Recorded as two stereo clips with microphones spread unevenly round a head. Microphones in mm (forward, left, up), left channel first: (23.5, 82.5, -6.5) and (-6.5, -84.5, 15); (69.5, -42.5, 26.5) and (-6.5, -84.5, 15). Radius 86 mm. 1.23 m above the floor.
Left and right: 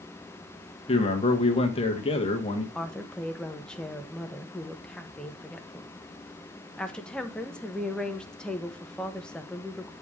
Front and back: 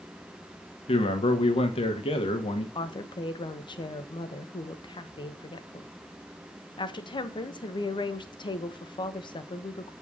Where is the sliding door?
No sliding door in this recording.